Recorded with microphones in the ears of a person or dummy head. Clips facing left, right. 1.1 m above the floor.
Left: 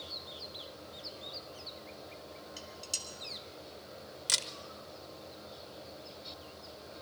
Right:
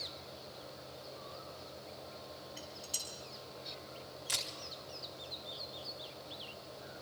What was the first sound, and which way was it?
Dishes clattering, 60° left (ahead or behind).